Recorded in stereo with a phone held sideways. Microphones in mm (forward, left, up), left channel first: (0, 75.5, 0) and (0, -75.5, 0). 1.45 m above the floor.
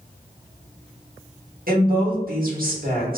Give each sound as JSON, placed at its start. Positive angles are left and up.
{"t": 1.7, "sound": "a woman speaking", "side_deg": -70, "distance_m": 2.0}